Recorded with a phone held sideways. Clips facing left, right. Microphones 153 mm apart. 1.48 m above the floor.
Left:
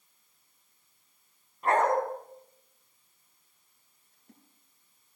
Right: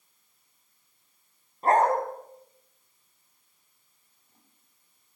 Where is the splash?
70° left (ahead or behind), 7 m.